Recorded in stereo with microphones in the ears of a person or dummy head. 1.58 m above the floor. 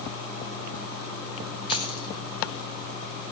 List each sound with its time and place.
1.7 s keys jangling: 30° left (ahead or behind), 5.5 m